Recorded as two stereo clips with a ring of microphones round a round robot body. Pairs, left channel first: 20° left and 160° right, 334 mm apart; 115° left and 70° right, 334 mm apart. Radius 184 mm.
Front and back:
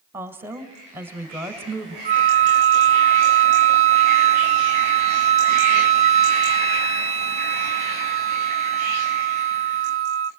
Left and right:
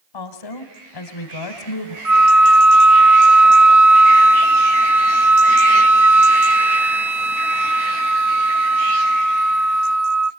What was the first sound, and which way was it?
A woman speaking, 120° left.